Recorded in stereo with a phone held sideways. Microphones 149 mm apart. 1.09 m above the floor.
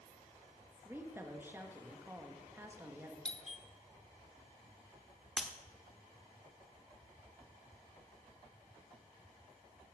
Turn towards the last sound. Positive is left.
turn(degrees=0)  # may be behind; listen again after turning